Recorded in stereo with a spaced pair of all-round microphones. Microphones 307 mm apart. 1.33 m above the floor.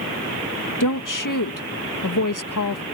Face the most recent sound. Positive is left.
turn(degrees=85)